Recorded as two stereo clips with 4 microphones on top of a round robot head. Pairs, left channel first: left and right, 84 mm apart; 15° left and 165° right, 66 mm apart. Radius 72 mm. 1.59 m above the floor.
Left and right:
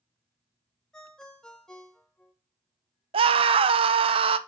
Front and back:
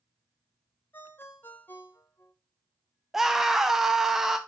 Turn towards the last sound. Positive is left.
turn(degrees=-85)